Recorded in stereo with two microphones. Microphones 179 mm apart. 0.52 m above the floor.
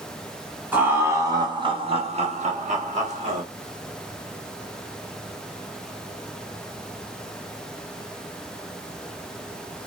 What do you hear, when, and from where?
0.7 s laughter: 10° right (ahead or behind), 1.0 m; by 3.4 s 40° right (ahead or behind), 1.1 m